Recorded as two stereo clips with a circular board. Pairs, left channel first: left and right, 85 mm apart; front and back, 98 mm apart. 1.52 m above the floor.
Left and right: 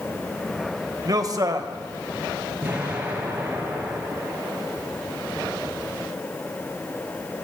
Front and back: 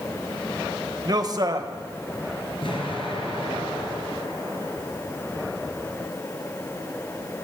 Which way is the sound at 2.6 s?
15° right.